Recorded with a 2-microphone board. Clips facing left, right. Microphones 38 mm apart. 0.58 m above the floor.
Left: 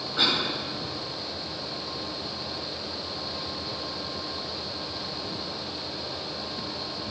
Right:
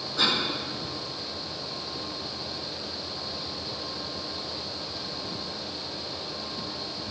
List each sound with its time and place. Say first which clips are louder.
0.2 s a cough: left 1 dB; 30° left (ahead or behind), 4 m